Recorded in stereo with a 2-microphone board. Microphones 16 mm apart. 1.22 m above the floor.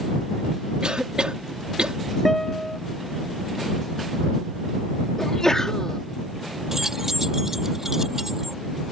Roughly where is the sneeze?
Left.